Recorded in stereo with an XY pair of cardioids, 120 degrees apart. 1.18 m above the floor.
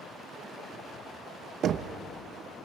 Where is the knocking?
55° right, 1.0 m.